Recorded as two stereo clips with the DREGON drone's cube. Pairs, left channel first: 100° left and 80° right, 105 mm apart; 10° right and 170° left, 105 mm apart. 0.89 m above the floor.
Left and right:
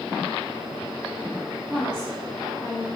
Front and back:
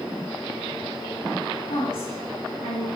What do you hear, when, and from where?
1.7 s a woman speaking: 15° left, 4.5 m